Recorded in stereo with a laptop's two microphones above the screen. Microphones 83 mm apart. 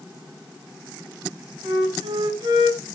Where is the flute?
80° right, 6 m.